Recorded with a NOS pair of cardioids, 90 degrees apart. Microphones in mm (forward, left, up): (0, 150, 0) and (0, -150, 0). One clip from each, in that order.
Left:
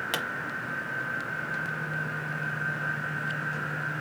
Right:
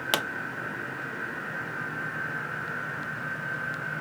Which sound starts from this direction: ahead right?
A pop, at 0.1 s.